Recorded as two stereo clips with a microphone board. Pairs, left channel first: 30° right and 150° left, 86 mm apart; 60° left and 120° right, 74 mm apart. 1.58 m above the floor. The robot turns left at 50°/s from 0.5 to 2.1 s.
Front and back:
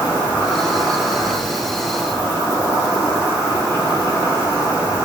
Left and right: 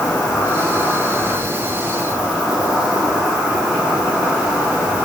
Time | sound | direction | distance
0.0 | an insect | 25° left | 1.1 m